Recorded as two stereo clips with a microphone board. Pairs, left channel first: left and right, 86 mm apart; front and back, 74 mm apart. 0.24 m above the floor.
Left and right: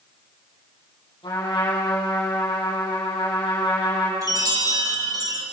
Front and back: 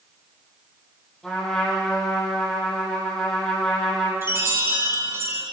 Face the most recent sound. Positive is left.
turn(degrees=-130)